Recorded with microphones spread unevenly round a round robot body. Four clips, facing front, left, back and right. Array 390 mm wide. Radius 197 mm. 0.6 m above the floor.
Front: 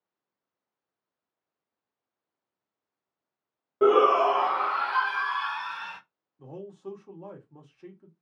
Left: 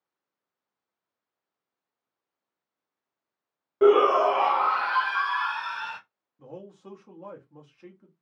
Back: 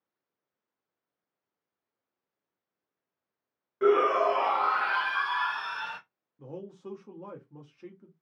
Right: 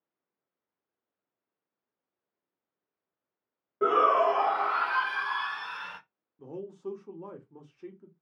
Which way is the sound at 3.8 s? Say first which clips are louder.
Left 5 dB, front 3 dB; 50° left.